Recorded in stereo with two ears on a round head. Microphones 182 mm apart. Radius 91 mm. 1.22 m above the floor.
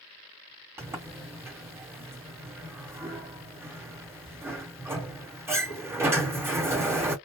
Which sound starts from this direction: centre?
A sliding door, at 0.8 s.